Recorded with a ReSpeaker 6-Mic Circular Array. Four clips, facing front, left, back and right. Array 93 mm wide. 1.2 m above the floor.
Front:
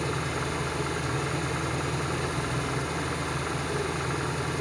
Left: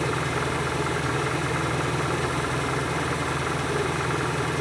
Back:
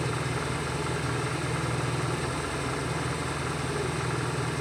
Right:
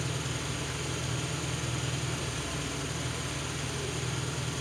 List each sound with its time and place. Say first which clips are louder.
0.0 s an engine running: left 11 dB, front 1 dB; 85° left, 2 m